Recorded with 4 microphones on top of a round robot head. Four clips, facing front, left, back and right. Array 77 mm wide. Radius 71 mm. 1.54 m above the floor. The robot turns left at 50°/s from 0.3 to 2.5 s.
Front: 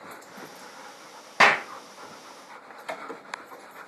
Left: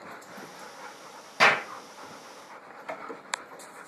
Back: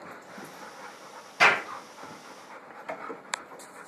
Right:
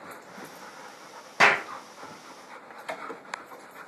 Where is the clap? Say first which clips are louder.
Right 1 dB, front 2 dB; 20° right, 1.2 m; by 1.6 s 30° right, 1.2 m.